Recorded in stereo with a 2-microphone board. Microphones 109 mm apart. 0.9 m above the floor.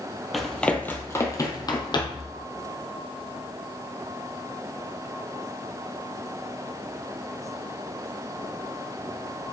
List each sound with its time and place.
0.3 s running footsteps: centre (ahead or behind), 1.0 m; by 2.3 s 50° left (ahead or behind), 1.5 m